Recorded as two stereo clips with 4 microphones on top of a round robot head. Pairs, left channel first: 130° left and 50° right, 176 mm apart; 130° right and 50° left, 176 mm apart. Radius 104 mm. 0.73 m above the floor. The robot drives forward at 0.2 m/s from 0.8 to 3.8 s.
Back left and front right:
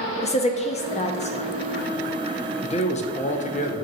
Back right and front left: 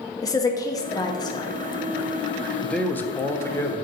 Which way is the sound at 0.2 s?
165° left.